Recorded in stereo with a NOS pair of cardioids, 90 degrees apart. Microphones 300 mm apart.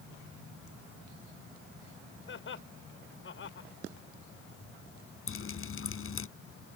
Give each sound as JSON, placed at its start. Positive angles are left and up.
{"t": 2.3, "sound": "laughter", "azimuth_deg": 40}
{"t": 5.3, "sound": "dripping", "azimuth_deg": 45}